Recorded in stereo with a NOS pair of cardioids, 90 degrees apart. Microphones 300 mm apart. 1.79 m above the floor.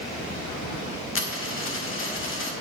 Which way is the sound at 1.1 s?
45° left.